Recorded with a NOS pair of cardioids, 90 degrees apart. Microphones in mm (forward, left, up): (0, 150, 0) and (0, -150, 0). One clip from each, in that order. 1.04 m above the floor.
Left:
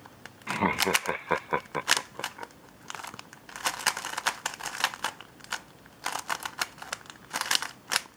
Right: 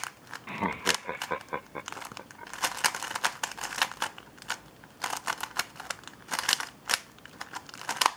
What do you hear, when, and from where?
0.5 s laughter: 20° left; by 2.5 s 40° left